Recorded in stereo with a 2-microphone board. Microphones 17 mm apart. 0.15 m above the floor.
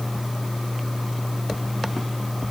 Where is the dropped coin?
No dropped coin in this recording.